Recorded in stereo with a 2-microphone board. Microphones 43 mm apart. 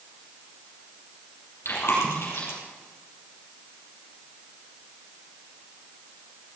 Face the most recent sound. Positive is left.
turn(degrees=65)  # may be behind; listen again after turning